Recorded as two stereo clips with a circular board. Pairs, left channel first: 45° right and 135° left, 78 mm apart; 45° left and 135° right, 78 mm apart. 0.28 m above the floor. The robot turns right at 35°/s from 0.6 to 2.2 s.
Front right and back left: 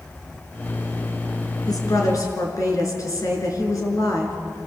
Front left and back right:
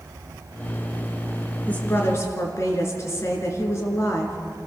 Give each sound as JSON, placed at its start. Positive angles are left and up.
{"t": 1.7, "sound": "a woman speaking", "azimuth_deg": -25, "distance_m": 4.5}